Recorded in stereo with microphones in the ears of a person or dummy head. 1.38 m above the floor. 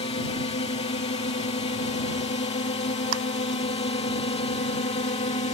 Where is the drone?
30° left (ahead or behind).